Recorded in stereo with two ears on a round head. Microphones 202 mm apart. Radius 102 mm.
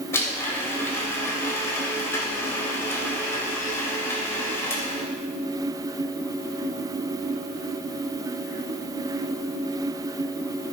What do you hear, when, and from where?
0.1 s a blender: 15° left (ahead or behind), 3 m